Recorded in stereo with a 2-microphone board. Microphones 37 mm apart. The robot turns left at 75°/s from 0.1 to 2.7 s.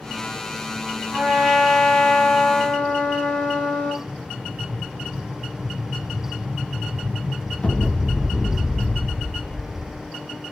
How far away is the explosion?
About 1.0 m.